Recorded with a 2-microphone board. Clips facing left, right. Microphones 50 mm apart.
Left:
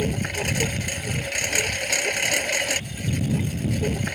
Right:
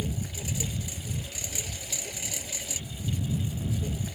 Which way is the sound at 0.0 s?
70° left (ahead or behind).